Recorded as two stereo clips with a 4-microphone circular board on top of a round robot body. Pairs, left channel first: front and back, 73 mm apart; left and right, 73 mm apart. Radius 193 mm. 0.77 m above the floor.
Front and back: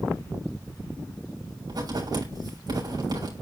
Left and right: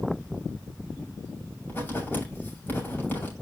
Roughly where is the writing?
Behind left.